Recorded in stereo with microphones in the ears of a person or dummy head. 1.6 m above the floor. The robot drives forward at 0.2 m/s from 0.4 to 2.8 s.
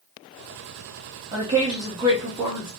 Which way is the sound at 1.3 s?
20° right (ahead or behind).